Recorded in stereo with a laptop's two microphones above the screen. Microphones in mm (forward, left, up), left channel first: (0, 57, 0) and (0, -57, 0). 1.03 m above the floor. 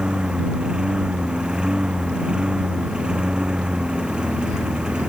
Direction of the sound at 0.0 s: 5° right (ahead or behind).